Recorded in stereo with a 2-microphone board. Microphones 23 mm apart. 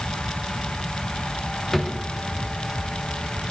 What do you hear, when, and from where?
1.7 s a drawer: 15° left (ahead or behind), 0.7 m